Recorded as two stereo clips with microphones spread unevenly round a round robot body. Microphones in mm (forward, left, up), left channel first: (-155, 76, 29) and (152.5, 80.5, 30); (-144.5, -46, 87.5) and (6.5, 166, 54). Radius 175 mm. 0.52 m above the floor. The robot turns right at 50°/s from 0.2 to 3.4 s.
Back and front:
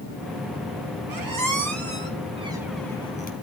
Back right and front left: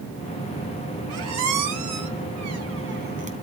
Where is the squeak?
10° left, 3 m; by 3.3 s 120° left, 3 m.